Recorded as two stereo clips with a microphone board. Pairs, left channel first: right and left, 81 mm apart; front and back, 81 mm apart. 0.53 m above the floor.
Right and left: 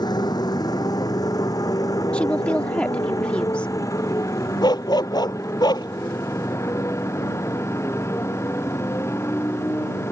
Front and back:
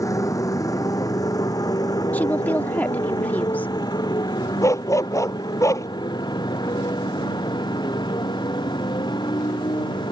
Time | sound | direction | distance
0.0 | a motorcycle | 50° right | ?
2.1 | a woman speaking | 30° right | ?
4.6 | a dog barking | 50° right | ?